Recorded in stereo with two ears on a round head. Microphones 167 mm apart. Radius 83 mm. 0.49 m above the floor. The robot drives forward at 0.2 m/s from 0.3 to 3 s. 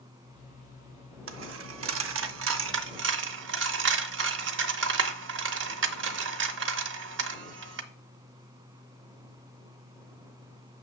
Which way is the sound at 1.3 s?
75° right (ahead or behind).